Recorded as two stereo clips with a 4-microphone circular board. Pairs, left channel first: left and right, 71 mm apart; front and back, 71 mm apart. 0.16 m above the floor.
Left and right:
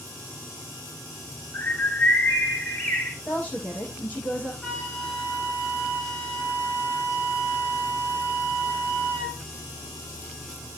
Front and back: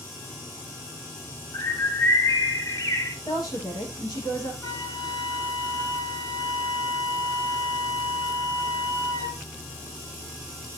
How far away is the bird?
About 3 m.